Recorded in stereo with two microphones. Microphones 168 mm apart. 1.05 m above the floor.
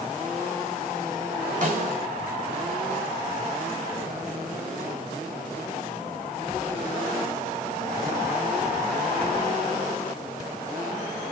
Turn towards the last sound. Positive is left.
turn(degrees=-55)  # may be behind; listen again after turning